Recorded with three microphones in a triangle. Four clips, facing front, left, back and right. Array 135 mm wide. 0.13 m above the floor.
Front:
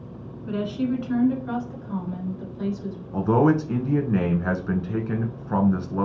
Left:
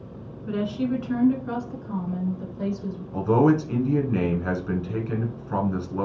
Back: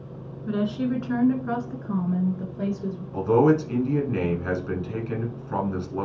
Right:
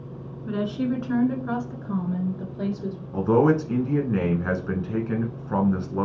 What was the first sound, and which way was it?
A woman speaking, 155° right.